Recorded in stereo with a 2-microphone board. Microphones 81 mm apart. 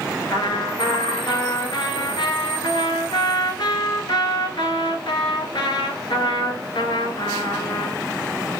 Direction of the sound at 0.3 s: 80° left.